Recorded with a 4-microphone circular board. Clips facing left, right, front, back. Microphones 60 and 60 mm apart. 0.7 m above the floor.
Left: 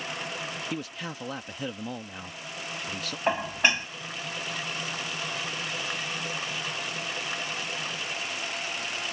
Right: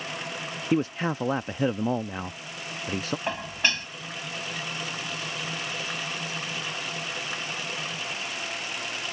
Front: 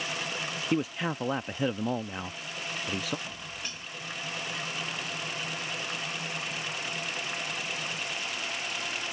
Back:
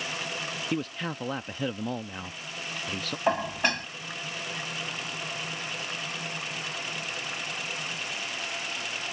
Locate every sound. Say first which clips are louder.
0.7 s a man speaking: right 10 dB, front 4 dB; 75° right
3.3 s dishes clattering: left 6 dB, back 15 dB; 160° left